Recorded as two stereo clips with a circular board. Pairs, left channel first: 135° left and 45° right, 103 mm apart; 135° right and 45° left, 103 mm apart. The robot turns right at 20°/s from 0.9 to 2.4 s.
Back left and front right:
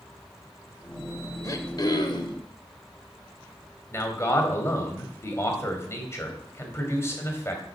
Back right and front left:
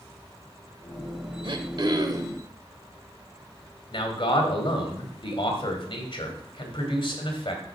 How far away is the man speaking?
About 2.0 m.